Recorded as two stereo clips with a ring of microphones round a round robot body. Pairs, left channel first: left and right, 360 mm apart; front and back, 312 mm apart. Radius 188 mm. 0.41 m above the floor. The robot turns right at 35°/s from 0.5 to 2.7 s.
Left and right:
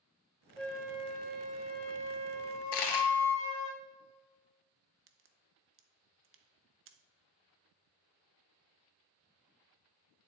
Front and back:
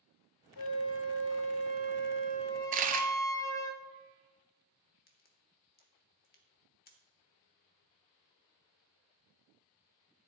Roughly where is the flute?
Ahead.